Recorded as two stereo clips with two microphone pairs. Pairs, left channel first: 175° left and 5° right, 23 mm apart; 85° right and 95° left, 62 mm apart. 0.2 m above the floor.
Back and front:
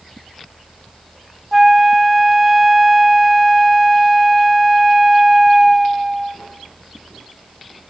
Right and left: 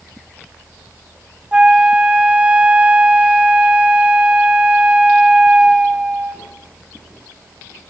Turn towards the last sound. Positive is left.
turn(degrees=55)